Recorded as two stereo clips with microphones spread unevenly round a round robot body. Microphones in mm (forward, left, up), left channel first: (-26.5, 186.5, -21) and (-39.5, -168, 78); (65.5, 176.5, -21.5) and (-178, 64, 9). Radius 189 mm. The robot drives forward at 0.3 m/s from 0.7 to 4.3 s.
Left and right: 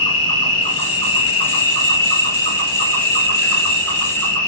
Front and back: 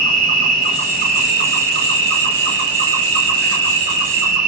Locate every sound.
0.0 s an insect: 150° left, 0.9 m; by 4.5 s 165° left, 1.9 m